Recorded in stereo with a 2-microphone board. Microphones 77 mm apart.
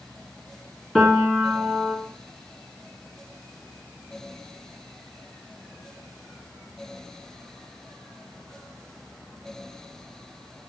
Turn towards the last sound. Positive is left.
turn(degrees=0)  # may be behind; listen again after turning